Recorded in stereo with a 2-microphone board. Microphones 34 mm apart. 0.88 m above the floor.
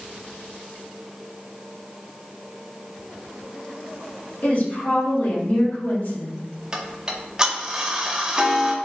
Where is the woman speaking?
65° left (ahead or behind), 1.9 m.